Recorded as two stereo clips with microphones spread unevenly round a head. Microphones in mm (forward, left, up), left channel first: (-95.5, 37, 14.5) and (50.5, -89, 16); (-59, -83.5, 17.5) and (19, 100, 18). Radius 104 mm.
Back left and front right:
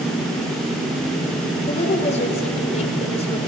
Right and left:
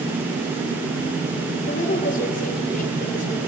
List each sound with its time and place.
1.7 s a woman speaking: 165° right, 3 m